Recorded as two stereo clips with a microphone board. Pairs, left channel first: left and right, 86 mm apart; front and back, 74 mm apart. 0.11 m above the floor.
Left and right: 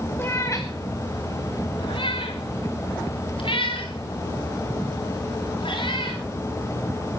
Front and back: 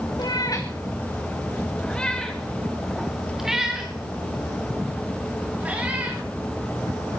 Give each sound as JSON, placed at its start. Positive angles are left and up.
{"t": 0.2, "sound": "a cat meowing", "azimuth_deg": 25, "distance_m": 2.0}